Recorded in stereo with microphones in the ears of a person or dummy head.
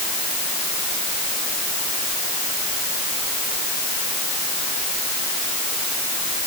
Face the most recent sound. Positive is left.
No sound to turn to.